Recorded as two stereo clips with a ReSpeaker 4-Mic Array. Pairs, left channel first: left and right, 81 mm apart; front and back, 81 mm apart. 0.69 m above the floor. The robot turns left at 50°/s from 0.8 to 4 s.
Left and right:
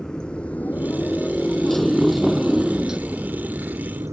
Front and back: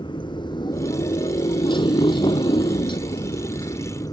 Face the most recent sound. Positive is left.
turn(degrees=-35)